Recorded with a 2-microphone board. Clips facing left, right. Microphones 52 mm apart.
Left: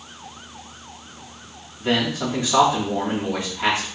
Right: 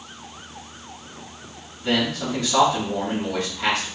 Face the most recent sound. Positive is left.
turn(degrees=20)  # may be behind; listen again after turning